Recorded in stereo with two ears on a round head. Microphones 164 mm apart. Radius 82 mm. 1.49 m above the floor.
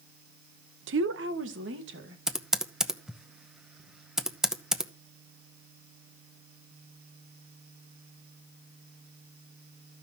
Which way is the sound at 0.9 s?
80° right.